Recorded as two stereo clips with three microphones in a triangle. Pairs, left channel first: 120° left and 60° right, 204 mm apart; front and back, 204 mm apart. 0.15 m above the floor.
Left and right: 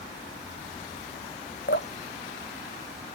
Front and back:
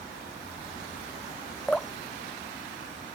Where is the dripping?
85° left.